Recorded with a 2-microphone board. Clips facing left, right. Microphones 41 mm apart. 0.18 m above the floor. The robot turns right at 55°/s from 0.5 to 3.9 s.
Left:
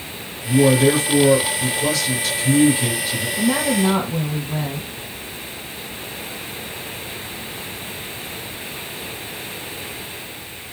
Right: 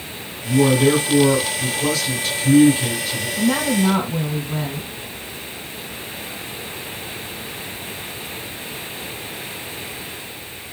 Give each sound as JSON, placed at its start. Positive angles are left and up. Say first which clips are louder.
{"t": 0.4, "sound": "a man speaking", "louder": "left 1 dB", "side_deg": -20, "distance_m": 1.8}
{"t": 3.4, "sound": "a woman speaking", "louder": "even", "side_deg": -10, "distance_m": 1.7}